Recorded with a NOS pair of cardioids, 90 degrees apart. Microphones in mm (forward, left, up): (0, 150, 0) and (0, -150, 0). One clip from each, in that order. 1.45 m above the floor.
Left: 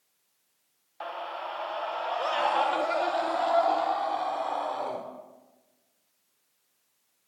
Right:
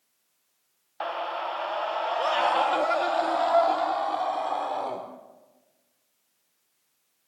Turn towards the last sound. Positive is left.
turn(degrees=-15)